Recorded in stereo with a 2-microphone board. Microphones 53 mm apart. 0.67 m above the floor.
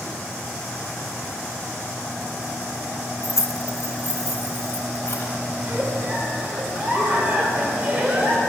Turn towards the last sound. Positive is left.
turn(degrees=-25)  # may be behind; listen again after turning